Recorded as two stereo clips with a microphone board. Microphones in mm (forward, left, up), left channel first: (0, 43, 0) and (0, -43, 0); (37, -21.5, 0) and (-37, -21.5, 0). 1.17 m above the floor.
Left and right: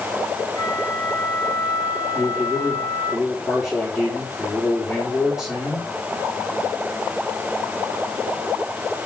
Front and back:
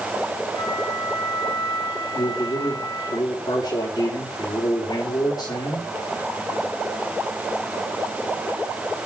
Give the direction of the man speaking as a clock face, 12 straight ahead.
12 o'clock.